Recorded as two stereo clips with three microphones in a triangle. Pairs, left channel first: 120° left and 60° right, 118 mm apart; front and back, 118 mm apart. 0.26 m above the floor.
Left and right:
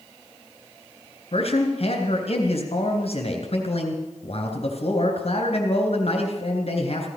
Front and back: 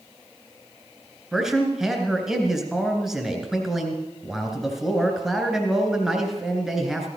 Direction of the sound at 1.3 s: 95° left.